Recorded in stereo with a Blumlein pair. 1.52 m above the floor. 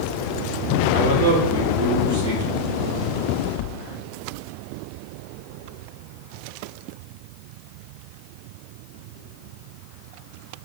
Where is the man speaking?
60° right, 1.1 m.